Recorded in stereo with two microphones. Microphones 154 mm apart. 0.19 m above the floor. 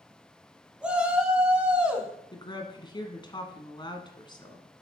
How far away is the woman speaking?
About 1.4 m.